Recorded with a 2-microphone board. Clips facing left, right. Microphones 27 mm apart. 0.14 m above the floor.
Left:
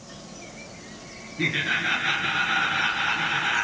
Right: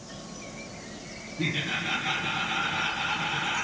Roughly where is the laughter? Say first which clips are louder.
Left 5 dB; left.